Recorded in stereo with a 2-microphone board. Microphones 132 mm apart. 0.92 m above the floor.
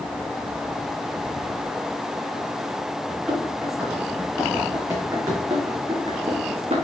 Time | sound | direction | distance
3.1 | running footsteps | 10° right (ahead or behind) | 4.5 m